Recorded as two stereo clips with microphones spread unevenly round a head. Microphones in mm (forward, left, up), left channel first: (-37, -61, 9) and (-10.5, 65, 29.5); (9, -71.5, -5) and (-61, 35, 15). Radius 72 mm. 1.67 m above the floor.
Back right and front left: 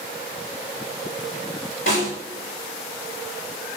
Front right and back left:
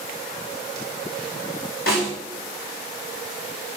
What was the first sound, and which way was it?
A snare drum, 55° right.